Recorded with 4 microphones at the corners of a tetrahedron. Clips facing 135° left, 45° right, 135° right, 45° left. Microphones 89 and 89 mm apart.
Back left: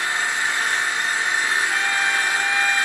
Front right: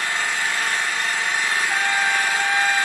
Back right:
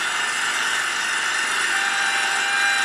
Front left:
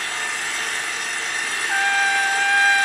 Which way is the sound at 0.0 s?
155° right.